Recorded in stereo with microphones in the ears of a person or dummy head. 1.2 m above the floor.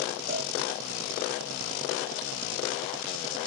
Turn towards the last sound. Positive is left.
turn(degrees=-15)  # may be behind; listen again after turning